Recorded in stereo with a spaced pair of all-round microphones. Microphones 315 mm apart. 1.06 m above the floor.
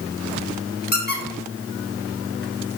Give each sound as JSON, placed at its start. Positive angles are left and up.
{"t": 0.9, "sound": "a squeak", "side_deg": 30, "distance_m": 1.1}